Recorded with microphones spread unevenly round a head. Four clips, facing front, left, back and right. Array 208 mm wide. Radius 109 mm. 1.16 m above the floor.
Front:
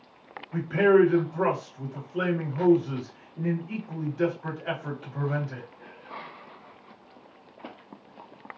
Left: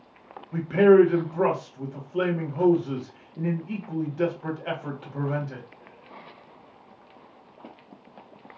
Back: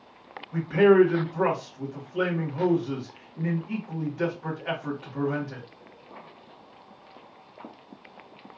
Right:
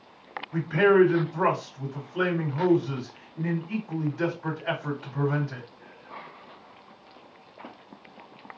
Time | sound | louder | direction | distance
0.5 | a man speaking | left 4 dB, back 2 dB | 90° left | 1.5 m